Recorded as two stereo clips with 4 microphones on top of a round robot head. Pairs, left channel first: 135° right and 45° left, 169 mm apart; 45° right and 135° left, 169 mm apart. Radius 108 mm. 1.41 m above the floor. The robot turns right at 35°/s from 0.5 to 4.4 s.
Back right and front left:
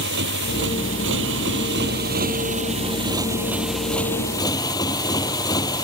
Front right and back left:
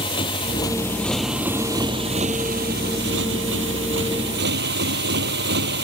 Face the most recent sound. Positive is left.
turn(degrees=155)